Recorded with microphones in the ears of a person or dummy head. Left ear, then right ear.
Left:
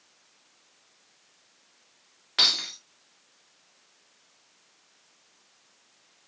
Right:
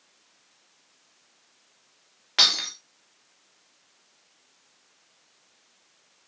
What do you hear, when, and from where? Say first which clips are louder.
2.4 s breaking glass: right 2 dB; 15° right (ahead or behind), 2 m